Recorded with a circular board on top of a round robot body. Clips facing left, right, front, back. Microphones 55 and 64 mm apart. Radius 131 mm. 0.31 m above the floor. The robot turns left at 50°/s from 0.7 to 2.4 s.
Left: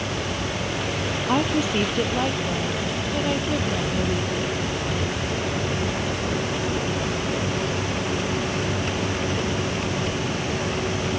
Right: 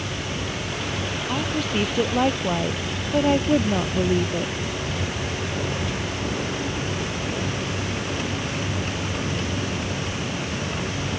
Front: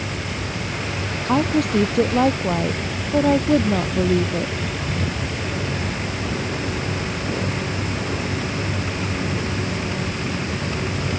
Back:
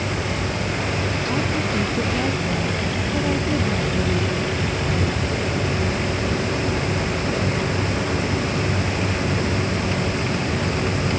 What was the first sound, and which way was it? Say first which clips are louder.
A woman speaking: left 4 dB, front 8 dB; 25° left.